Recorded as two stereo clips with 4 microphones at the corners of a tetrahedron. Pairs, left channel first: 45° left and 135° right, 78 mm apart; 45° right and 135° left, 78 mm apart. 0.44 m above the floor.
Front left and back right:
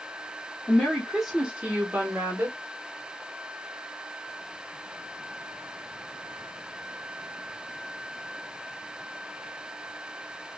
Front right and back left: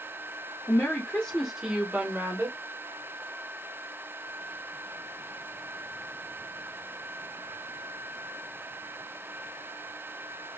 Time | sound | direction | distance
0.7 | a woman speaking | 25° right | 1.0 m